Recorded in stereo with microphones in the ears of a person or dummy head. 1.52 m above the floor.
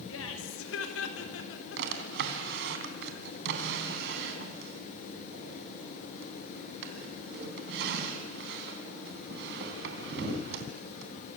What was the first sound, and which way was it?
Laughter, 85° left.